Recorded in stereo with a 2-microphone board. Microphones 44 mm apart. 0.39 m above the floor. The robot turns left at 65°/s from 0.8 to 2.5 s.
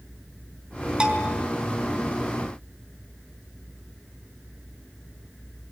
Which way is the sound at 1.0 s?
25° right (ahead or behind).